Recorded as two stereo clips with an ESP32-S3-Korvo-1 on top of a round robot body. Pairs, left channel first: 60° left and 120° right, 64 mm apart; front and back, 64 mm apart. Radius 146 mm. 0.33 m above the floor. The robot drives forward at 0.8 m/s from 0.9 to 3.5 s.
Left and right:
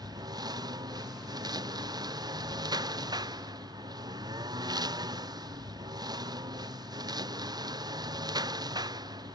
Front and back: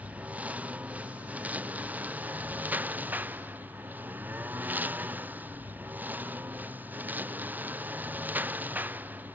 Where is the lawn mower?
110° right; by 9.4 s 115° right.